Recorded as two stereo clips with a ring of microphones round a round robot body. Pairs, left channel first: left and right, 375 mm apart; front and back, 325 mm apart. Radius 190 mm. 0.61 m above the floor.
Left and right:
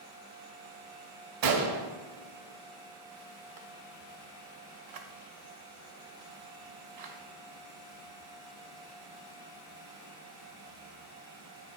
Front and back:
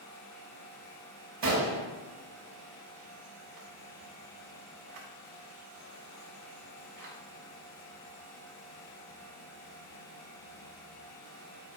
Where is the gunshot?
125° right, 0.6 m.